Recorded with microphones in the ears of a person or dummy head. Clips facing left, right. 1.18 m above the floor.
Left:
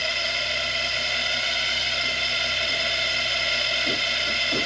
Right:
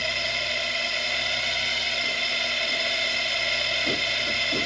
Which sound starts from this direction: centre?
A drone, at 0.0 s.